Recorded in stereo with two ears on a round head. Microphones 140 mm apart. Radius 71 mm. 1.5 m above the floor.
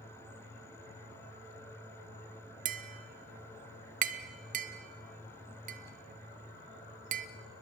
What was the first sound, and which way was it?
Tapping, 55° right (ahead or behind).